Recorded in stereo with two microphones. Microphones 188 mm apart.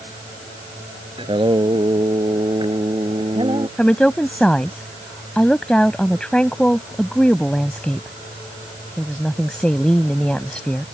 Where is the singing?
30° right (ahead or behind).